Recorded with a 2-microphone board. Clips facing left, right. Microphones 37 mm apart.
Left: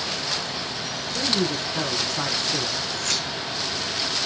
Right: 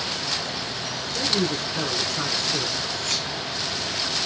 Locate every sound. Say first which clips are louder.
1.1 s a man speaking: even; 60° left (ahead or behind), 7 m
3.0 s keys jangling: left 1 dB; 80° left, 5 m